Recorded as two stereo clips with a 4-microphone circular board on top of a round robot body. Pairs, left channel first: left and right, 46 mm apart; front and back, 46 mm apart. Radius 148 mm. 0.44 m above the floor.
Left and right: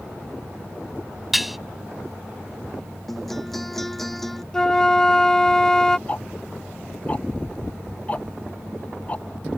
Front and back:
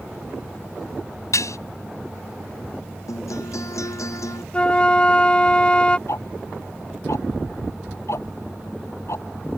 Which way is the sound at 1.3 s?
5° right.